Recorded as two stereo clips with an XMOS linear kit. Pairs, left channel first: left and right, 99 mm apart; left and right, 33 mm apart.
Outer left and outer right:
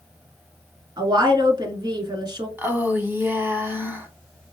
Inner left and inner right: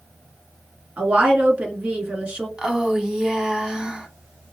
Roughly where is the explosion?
I don't hear an explosion.